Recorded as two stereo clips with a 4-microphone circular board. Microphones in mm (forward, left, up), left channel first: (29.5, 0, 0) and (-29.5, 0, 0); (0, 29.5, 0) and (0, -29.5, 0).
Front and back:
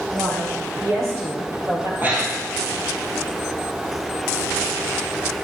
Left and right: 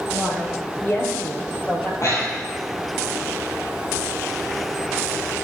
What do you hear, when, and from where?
0.1 s a woman speaking: 135° left, 4.5 m; by 1.9 s 150° left, 3 m
2.0 s breathing: 120° left, 2.5 m